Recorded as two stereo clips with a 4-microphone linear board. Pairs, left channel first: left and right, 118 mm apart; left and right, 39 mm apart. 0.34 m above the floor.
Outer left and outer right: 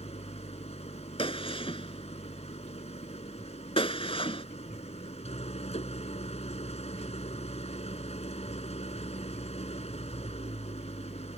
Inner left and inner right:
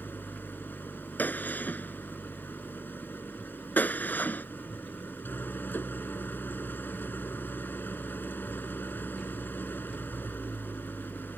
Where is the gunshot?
50° left (ahead or behind).